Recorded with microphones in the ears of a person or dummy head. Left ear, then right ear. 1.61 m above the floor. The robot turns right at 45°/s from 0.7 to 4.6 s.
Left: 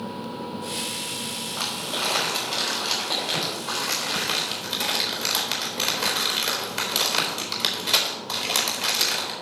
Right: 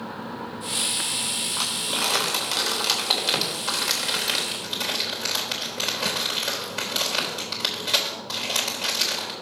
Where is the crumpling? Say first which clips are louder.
Even; 55° right (ahead or behind), 3.5 m; by 9.3 s 10° left (ahead or behind), 3.5 m.